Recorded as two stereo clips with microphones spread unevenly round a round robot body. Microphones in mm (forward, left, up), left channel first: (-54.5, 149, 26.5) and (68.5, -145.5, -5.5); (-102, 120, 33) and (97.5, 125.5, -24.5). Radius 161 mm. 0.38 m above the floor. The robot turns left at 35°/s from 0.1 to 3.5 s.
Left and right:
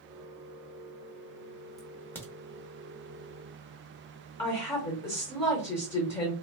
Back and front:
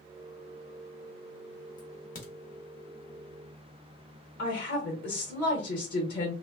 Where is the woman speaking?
Straight behind, 1.0 m.